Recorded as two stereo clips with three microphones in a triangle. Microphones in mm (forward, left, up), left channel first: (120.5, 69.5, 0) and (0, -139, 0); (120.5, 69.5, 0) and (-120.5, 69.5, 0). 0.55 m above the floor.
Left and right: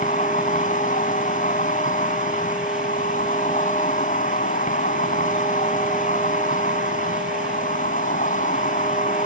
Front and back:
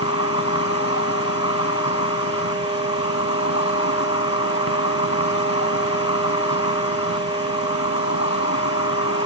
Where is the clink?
No clink in this recording.